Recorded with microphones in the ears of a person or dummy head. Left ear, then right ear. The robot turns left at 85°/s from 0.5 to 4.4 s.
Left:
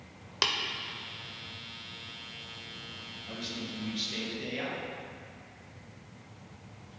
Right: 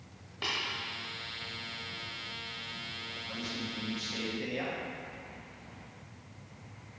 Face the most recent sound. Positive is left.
turn(degrees=0)